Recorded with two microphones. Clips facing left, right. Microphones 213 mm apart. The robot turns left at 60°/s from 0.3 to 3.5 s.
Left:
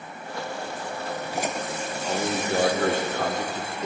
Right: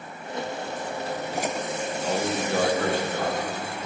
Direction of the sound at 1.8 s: 165° right.